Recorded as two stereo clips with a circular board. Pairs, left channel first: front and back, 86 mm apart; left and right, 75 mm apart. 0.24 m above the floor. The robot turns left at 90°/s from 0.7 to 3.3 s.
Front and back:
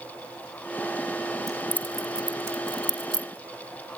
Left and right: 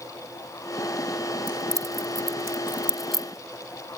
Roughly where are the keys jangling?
Ahead right.